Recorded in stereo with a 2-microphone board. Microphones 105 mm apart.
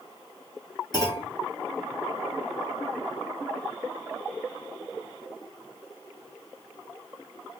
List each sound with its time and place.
0.9 s a clunk: 40° left (ahead or behind), 1.4 m